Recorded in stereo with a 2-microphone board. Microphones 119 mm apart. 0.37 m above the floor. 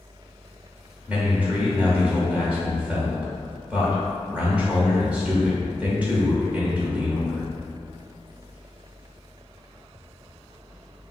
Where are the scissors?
No scissors in this recording.